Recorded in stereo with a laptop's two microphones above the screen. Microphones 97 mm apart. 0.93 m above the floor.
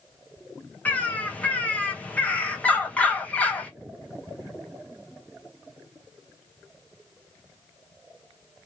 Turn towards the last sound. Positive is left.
turn(degrees=15)  # may be behind; listen again after turning